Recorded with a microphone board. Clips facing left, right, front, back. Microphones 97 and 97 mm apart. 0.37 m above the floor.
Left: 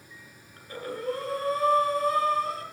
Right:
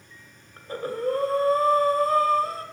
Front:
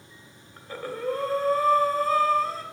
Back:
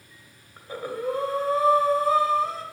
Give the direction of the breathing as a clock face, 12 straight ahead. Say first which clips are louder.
Right 6 dB, back 2 dB; 4 o'clock.